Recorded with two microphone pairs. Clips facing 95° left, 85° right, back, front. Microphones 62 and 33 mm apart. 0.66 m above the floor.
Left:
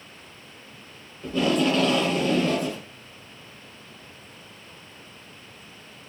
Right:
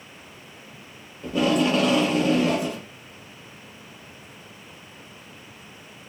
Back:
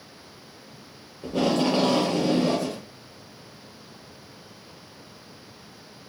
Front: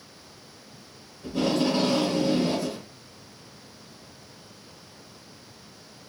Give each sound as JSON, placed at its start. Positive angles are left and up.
{"t": 1.2, "sound": "tape being pulled", "azimuth_deg": -165, "distance_m": 0.9}